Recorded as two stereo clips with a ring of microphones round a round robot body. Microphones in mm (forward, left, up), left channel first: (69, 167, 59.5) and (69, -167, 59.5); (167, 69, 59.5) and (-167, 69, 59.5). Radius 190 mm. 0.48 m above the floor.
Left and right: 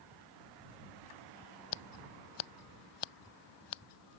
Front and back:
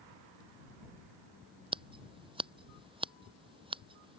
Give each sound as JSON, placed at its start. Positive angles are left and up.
{"t": 1.7, "sound": "scissors", "azimuth_deg": 105}